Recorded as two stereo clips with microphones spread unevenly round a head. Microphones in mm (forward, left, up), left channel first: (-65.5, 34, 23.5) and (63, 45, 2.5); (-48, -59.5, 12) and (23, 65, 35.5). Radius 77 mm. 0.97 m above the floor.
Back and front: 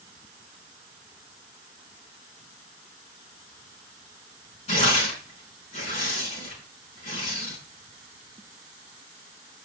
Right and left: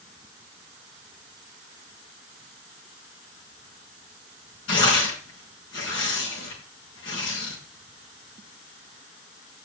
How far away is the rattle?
No rattle in this recording.